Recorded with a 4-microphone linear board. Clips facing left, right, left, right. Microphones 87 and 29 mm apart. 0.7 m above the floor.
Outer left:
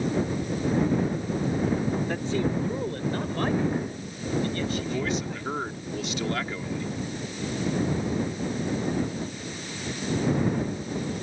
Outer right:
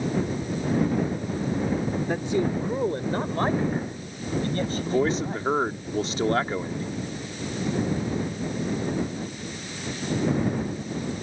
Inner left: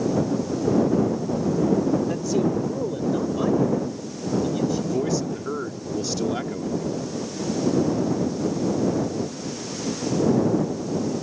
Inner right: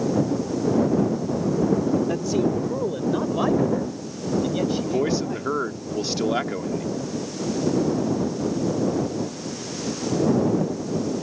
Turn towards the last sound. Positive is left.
turn(degrees=-35)  # may be behind; listen again after turning